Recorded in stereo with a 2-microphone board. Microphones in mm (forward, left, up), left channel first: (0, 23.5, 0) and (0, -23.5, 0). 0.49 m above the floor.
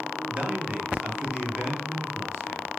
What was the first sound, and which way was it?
A man speaking, 25° right (ahead or behind).